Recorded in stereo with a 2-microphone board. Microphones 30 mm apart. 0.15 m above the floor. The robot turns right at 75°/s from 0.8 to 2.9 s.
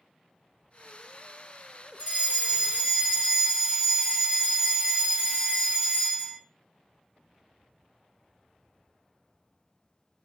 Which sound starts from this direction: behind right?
A fire alarm, at 2.0 s.